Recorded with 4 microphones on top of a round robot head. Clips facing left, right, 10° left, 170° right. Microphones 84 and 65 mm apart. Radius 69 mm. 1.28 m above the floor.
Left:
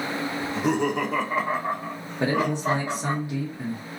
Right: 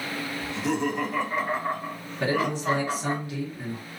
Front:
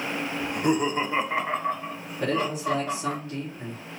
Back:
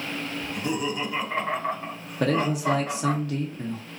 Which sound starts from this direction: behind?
A man speaking, at 2.2 s.